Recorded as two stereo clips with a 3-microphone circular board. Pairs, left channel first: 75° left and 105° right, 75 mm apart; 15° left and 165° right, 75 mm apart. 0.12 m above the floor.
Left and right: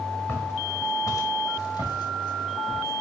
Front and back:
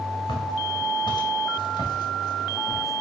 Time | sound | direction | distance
0.3 | footsteps | 15° left | 2.5 m